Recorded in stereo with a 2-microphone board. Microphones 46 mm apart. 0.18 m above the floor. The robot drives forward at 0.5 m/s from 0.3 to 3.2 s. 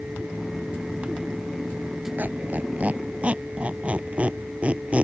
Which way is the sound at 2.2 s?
45° right (ahead or behind).